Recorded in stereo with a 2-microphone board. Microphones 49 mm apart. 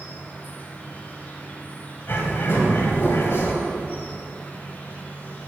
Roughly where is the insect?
Left.